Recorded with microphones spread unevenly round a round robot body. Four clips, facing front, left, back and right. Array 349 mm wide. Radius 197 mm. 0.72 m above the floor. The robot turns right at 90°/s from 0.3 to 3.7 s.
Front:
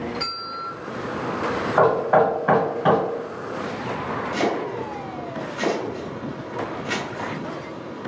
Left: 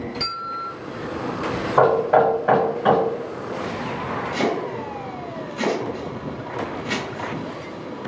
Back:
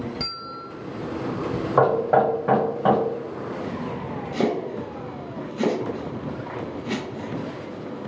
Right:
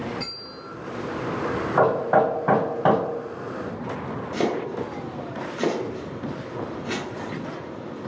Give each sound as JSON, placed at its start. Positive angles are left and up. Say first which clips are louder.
{"t": 0.2, "sound": "a bell", "louder": "left 8 dB, front 3 dB", "azimuth_deg": 175, "distance_m": 1.0}
{"t": 1.8, "sound": "knocking", "louder": "left 4 dB, front 1 dB", "azimuth_deg": 160, "distance_m": 1.2}
{"t": 4.3, "sound": "chopping", "louder": "even, back 1 dB", "azimuth_deg": -155, "distance_m": 0.9}